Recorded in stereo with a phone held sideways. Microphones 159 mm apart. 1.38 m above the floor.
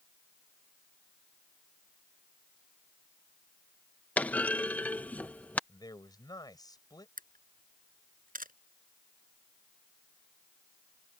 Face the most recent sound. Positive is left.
turn(degrees=-60)  # may be behind; listen again after turning